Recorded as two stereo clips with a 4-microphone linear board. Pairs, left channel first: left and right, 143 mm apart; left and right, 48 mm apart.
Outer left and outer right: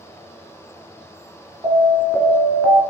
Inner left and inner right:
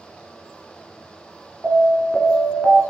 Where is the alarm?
20° right (ahead or behind), 0.9 m.